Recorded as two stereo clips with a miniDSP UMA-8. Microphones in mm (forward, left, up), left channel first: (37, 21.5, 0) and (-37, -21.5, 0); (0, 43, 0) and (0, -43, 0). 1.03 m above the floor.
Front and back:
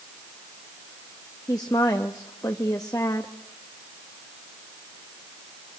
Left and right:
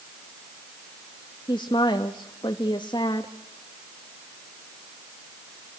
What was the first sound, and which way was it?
A woman speaking, 75° left.